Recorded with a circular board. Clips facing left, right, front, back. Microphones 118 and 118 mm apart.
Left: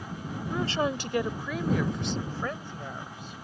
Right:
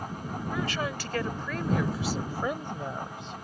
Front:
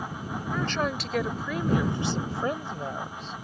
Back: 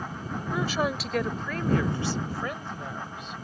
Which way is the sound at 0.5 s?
110° left.